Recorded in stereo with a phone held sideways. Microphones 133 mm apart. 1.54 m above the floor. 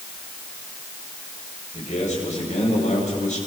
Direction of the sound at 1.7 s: 65° left (ahead or behind).